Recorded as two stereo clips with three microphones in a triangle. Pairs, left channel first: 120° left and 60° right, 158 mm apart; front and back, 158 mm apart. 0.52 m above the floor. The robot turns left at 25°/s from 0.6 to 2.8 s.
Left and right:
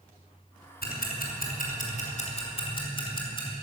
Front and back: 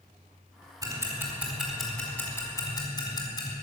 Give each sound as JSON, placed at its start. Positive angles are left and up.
{"t": 0.8, "sound": "ticking", "azimuth_deg": 115, "distance_m": 4.5}